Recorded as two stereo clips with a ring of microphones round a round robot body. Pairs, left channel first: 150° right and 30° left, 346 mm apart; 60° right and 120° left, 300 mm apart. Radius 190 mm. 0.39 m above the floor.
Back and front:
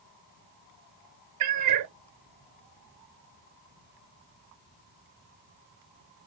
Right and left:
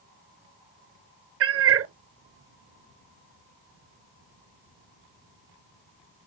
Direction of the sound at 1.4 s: 70° left.